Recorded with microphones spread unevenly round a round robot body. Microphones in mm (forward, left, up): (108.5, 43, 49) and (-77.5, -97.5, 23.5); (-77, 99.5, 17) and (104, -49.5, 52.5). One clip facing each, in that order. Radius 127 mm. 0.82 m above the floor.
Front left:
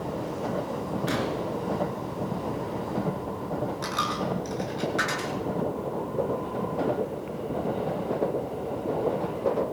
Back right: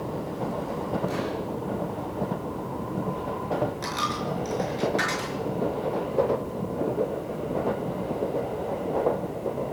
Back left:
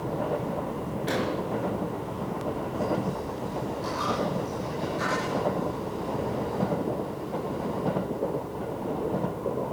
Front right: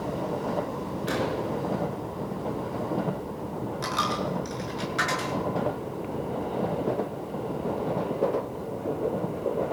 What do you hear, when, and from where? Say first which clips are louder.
1.1 s an explosion: front left 1 dB, even; 45° left, 4 m
3.8 s a dropped coin: even, back left 3 dB; 45° right, 6 m